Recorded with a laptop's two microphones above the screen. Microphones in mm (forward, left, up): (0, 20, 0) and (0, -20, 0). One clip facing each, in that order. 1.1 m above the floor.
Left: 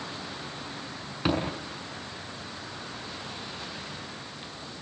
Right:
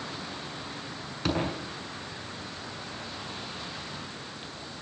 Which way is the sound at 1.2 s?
15° left (ahead or behind).